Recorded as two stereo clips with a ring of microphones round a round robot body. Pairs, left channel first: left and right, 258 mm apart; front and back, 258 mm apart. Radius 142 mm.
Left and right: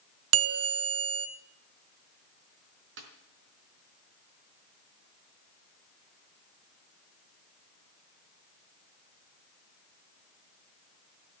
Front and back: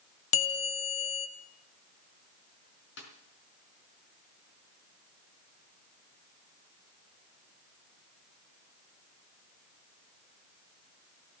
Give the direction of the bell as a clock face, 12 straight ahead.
2 o'clock.